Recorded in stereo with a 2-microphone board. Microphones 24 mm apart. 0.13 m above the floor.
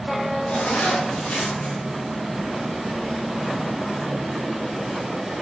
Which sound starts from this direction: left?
A zipper, at 0.5 s.